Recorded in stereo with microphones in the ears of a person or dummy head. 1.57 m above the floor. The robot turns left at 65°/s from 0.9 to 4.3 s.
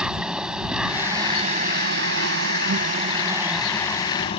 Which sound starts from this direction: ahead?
An insect, at 0.0 s.